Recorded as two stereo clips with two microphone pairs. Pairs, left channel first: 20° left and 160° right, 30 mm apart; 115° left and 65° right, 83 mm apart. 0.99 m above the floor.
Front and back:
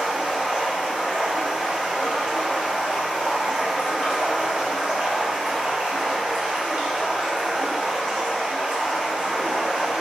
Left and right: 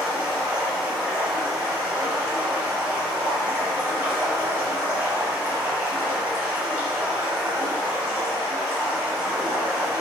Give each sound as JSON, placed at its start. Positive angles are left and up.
{"t": 0.0, "sound": "running water", "azimuth_deg": -130, "distance_m": 1.1}